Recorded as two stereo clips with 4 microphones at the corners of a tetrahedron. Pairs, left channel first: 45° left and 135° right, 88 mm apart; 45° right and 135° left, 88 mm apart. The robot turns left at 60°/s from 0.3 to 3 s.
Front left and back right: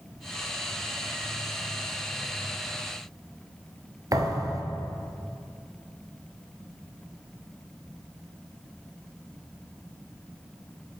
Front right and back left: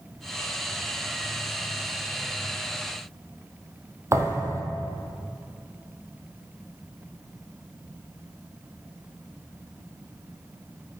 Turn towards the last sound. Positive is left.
turn(degrees=-175)